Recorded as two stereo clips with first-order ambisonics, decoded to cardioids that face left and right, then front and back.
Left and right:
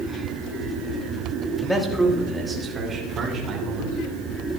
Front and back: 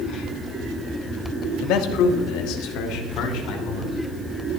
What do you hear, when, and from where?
1.6 s a man speaking: 5° left, 1.7 m; by 3.9 s 30° right, 3.5 m